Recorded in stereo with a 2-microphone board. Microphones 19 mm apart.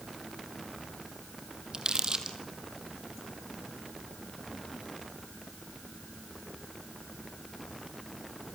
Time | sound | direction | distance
1.7 | crumpling | 40° right (ahead or behind) | 3 m